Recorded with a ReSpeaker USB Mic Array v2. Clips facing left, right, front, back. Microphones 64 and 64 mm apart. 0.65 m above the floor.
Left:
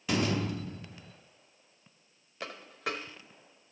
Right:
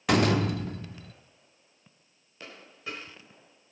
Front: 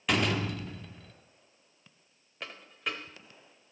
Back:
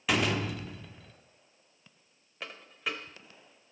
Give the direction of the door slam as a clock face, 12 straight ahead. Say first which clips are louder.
Right 6 dB, even; 3 o'clock.